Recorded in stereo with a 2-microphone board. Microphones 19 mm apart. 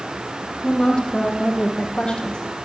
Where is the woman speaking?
55° left (ahead or behind), 4 m; by 2.4 s 65° left (ahead or behind), 3.5 m.